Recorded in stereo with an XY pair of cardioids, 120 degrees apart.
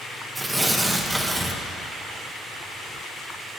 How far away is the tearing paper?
About 0.9 m.